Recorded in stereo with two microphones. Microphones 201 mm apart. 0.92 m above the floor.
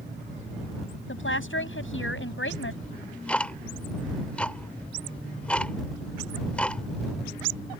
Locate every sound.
1.1 s a woman speaking: 85° left; by 2.7 s 80° left
2.8 s ticking: 5° left (ahead or behind)